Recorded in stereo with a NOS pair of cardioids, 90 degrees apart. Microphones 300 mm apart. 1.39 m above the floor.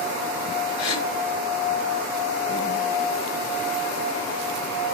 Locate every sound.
0.8 s a gasp: 65° left, 6 m